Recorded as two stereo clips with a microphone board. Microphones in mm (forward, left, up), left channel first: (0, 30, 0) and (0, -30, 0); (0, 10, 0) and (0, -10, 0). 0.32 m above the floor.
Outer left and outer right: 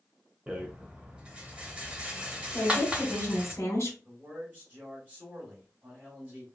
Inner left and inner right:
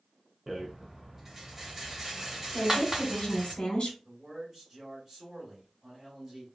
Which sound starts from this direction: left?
A woman speaking, at 2.5 s.